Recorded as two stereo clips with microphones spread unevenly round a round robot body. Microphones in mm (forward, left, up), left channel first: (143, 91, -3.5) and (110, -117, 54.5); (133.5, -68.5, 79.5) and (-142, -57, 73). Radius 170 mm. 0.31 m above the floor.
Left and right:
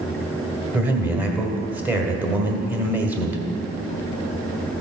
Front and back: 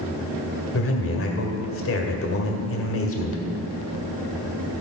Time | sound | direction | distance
0.7 | a man speaking | 5° right | 1.6 m